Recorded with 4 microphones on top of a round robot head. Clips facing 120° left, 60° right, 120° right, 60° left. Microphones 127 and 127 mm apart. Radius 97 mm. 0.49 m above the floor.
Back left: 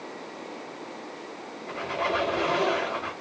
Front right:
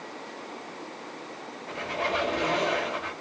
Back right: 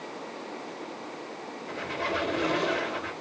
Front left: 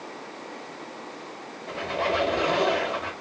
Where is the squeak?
35° left, 3.5 m.